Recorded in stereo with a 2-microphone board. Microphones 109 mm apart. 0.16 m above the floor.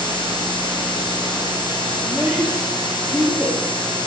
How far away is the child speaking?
About 2.5 m.